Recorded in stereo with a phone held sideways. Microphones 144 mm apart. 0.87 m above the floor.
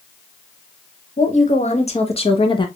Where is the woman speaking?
55° left (ahead or behind), 1.6 m; by 2.7 s 30° left (ahead or behind), 1.0 m.